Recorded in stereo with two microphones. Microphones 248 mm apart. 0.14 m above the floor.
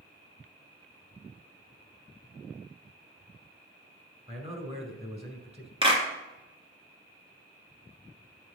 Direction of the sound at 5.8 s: 20° right (ahead or behind).